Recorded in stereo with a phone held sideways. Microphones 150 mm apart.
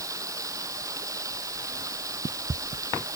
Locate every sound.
0.0 s running water: 25° right (ahead or behind)